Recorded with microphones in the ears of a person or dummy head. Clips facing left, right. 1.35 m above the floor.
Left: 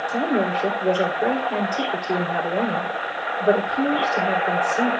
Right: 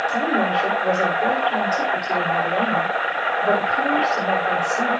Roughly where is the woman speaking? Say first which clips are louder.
Left 2 dB; left.